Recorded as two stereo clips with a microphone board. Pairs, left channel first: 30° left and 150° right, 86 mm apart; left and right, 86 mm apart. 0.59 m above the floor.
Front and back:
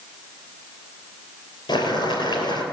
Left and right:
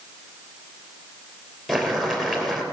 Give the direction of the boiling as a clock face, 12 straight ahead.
12 o'clock.